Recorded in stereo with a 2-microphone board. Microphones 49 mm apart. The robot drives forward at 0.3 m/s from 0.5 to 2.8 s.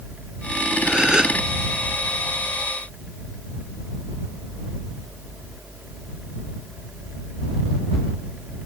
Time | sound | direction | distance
0.8 | a gasp | 20° right (ahead or behind) | ?